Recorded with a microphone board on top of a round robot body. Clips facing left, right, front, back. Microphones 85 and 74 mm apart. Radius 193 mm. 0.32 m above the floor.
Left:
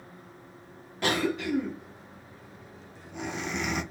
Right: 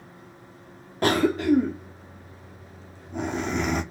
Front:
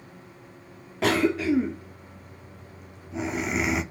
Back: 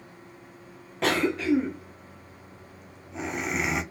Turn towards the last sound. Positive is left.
turn(degrees=-85)